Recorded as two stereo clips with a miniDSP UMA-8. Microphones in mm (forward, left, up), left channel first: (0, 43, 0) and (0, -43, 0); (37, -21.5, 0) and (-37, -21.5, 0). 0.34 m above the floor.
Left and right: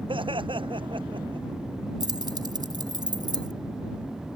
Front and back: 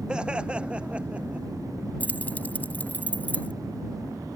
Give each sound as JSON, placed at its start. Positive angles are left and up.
{"t": 0.1, "sound": "laughter", "azimuth_deg": -105}
{"t": 2.0, "sound": "keys jangling", "azimuth_deg": -65}